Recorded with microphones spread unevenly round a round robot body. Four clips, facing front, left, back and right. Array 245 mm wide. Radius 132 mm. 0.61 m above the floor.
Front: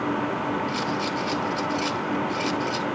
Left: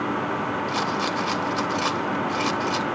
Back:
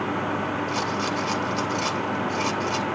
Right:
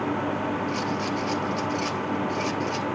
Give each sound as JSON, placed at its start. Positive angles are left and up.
{"t": 0.7, "sound": "a rattle", "azimuth_deg": 115, "distance_m": 1.7}